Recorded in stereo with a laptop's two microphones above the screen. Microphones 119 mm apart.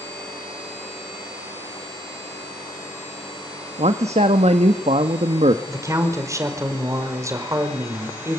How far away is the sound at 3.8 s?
About 1.3 m.